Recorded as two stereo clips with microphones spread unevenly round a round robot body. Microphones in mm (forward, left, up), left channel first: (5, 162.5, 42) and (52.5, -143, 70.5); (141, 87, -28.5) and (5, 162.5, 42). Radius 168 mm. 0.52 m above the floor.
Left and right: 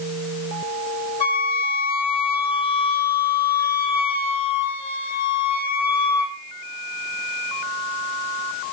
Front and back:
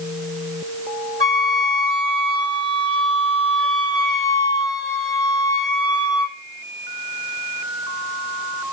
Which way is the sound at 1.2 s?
30° left.